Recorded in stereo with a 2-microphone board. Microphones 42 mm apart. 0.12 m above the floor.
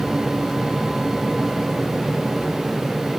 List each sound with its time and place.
Only background noise.